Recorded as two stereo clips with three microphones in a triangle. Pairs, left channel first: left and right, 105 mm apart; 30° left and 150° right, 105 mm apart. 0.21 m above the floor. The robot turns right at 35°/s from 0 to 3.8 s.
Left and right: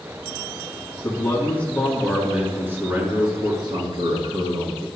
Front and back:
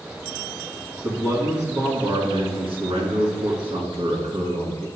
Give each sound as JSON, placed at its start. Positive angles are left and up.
{"t": 1.0, "sound": "a man speaking", "azimuth_deg": 145, "distance_m": 2.5}